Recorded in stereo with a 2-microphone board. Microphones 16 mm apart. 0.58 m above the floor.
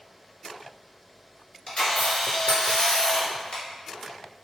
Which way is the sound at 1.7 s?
65° left (ahead or behind).